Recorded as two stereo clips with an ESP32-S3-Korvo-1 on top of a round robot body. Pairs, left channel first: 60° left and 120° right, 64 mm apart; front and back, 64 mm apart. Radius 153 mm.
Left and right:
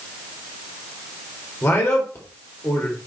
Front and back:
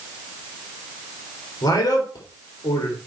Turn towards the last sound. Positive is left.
turn(degrees=-5)